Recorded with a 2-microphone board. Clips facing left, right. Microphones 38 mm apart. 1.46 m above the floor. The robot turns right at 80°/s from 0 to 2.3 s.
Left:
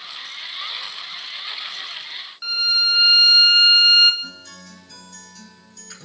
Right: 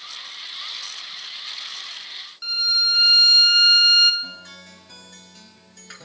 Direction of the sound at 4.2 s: 35° right (ahead or behind).